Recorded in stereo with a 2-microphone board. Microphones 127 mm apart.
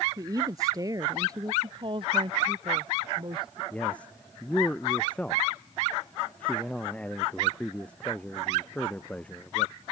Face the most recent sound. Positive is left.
turn(degrees=10)  # may be behind; listen again after turning